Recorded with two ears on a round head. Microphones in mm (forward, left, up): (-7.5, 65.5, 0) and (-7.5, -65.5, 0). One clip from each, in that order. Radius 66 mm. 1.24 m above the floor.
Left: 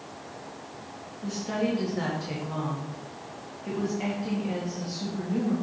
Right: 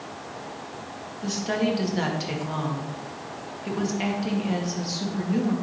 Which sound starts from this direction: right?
A woman speaking, at 1.2 s.